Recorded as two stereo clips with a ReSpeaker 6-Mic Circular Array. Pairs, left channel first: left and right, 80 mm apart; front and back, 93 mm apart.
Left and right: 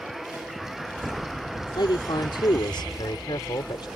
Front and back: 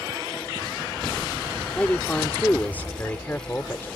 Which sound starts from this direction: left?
A man speaking, at 1.8 s.